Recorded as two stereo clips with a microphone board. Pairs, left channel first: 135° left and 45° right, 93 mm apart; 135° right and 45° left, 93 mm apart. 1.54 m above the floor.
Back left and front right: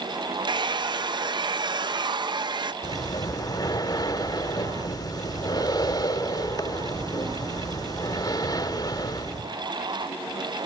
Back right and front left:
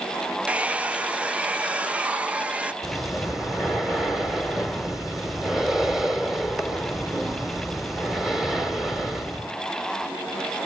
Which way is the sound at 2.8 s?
130° left.